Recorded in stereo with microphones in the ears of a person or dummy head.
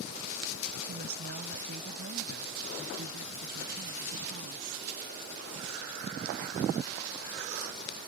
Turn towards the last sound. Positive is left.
turn(degrees=-60)  # may be behind; listen again after turning